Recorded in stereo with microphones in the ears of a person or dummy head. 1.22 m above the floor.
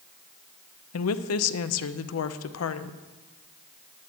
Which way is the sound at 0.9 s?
75° left (ahead or behind).